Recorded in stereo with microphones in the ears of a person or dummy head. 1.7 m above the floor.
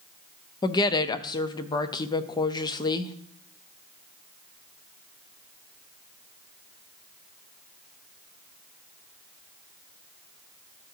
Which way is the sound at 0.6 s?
20° left (ahead or behind).